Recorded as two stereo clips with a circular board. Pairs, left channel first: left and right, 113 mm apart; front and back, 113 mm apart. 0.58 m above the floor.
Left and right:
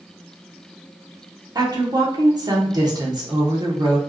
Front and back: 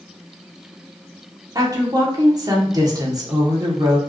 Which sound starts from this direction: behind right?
A woman speaking, at 1.6 s.